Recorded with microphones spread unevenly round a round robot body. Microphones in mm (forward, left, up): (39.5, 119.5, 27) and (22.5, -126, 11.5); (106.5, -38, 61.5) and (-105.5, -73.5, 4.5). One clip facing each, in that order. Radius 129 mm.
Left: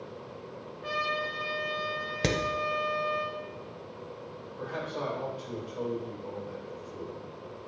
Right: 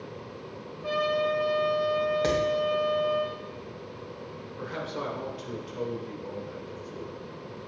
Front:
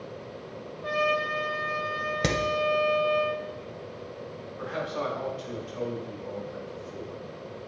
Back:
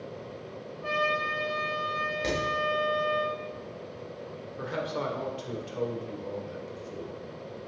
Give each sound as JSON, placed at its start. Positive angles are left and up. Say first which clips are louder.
{"t": 0.8, "sound": "a trumpet", "louder": "right 9 dB, front 3 dB", "azimuth_deg": 135, "distance_m": 3.5}
{"t": 2.2, "sound": "hammering", "louder": "left 1 dB, front 3 dB", "azimuth_deg": 35, "distance_m": 1.4}
{"t": 4.6, "sound": "a man speaking", "louder": "even, even", "azimuth_deg": -155, "distance_m": 2.0}